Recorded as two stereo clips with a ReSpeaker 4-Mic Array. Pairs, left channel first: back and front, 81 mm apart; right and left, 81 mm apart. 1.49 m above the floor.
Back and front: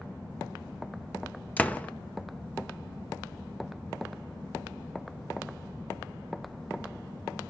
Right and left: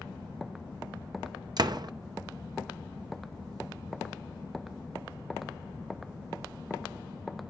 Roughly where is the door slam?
Left.